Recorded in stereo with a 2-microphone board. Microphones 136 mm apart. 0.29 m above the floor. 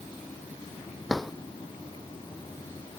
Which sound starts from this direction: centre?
A drawer, at 1.1 s.